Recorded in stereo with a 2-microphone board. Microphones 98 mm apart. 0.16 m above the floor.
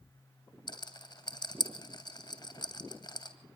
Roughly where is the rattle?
Left.